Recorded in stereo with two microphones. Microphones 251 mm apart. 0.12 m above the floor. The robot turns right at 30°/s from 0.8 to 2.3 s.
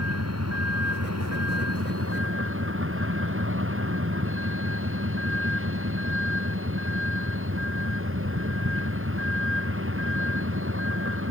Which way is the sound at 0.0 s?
100° right.